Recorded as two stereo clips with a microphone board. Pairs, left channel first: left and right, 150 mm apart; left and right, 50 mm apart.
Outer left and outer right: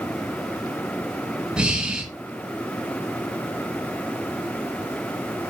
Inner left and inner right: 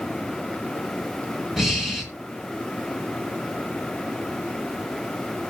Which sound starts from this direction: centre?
Breathing, at 1.6 s.